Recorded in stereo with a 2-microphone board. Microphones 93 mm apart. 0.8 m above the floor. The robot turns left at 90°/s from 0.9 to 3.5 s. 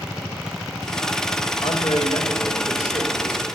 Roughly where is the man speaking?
Left.